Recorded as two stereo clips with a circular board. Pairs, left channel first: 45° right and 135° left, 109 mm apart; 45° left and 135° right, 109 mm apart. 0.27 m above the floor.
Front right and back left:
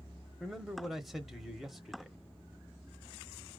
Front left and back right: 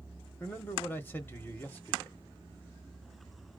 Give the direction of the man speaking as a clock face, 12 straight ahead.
10 o'clock.